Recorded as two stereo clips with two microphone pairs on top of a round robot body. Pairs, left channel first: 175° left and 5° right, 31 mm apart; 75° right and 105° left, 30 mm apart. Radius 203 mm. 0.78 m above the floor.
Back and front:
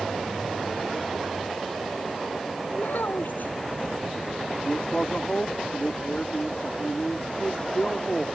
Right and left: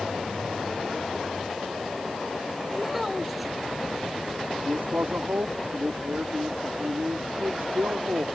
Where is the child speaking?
175° right.